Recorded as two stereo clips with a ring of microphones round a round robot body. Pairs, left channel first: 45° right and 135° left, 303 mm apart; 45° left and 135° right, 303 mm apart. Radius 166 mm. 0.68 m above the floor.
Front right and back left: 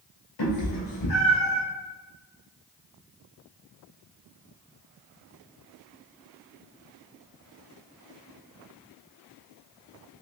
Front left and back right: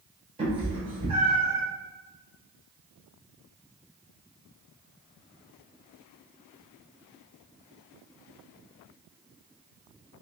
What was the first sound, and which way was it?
A cat meowing, 65° right.